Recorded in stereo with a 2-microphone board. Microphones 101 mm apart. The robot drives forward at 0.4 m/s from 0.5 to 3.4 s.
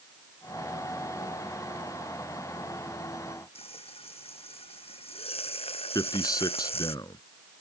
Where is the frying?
70° left (ahead or behind).